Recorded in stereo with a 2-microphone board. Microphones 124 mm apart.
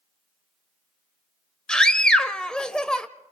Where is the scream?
5° left (ahead or behind), 1.2 m.